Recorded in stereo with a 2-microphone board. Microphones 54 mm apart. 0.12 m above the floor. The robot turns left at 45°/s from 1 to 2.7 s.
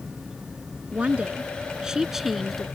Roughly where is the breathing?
I don't hear breathing.